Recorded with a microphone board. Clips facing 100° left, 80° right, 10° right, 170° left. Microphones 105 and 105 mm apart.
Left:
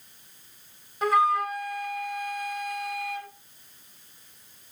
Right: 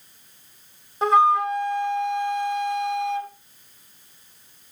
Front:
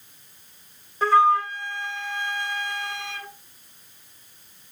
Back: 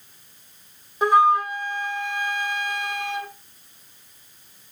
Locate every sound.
1.0 s a flute: 125° right, 1.6 m